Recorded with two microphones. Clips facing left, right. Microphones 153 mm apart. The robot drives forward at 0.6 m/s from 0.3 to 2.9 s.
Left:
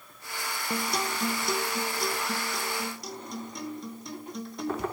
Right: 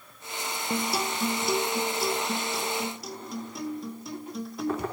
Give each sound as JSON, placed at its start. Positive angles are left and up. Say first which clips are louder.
{"t": 0.7, "sound": "a guitar", "louder": "right 2 dB", "side_deg": -5, "distance_m": 0.6}